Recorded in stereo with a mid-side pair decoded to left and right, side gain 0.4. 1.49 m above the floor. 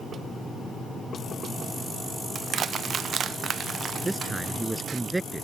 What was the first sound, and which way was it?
Crushing, 60° right.